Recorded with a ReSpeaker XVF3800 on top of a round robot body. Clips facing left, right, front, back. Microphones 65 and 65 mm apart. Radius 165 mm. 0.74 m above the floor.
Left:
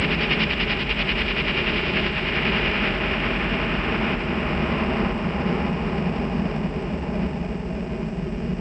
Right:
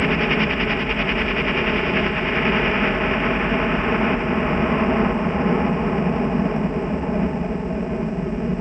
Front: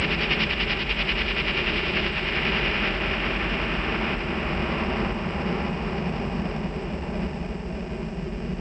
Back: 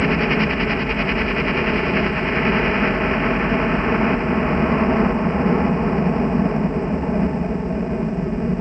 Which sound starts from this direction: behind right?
A helicopter, at 0.0 s.